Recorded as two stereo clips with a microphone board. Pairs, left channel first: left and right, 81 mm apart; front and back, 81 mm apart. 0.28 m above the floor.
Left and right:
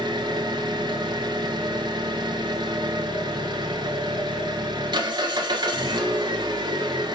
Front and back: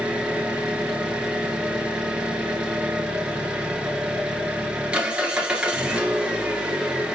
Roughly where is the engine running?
Right.